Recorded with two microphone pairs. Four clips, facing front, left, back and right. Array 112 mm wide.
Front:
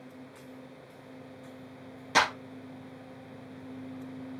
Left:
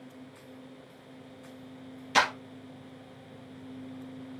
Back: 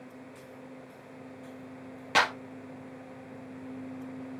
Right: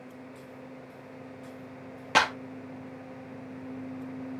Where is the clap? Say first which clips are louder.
Right 1 dB, even; 105° right, 3.5 m.